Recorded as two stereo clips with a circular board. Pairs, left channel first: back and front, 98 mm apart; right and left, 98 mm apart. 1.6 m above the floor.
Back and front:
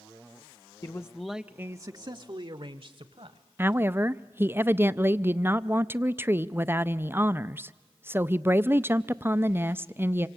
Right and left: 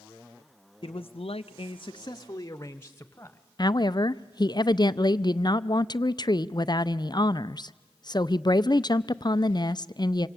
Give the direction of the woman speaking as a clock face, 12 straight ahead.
2 o'clock.